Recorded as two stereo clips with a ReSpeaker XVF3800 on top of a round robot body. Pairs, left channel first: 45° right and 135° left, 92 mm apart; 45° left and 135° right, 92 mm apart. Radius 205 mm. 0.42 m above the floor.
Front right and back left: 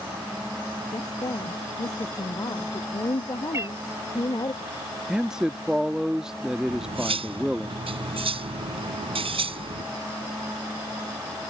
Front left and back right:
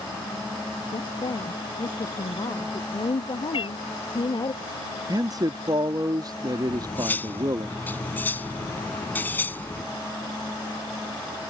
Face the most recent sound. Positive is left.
turn(degrees=115)